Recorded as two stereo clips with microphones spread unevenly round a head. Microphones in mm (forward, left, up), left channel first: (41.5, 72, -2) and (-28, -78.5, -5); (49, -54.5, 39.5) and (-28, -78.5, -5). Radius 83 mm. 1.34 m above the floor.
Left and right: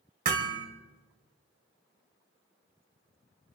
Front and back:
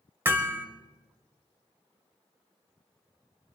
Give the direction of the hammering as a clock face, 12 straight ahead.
3 o'clock.